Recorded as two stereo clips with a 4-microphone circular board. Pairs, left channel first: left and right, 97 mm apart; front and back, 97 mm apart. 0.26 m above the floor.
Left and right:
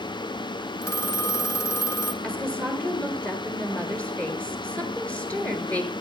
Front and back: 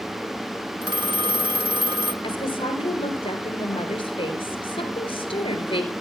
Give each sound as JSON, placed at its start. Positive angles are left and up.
{"t": 0.8, "sound": "a phone ringing", "azimuth_deg": 150, "distance_m": 1.8}
{"t": 2.2, "sound": "a woman speaking", "azimuth_deg": 15, "distance_m": 4.5}